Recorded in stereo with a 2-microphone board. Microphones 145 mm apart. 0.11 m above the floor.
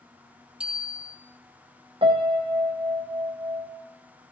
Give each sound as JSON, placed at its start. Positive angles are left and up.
{"t": 0.6, "sound": "a bicycle bell", "side_deg": -5, "distance_m": 2.5}
{"t": 2.0, "sound": "a piano", "side_deg": -40, "distance_m": 2.0}